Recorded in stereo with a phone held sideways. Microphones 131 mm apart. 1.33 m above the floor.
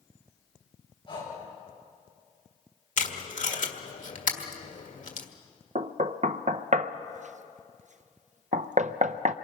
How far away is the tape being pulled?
About 1.6 m.